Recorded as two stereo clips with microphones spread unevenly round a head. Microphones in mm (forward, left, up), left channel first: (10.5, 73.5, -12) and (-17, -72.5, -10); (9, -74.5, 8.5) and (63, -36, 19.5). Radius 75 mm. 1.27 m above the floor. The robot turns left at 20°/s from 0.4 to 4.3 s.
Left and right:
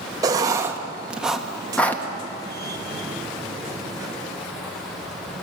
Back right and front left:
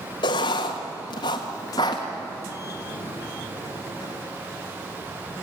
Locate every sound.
0.2 s writing: 170° right, 1.6 m; by 2.0 s 155° left, 1.6 m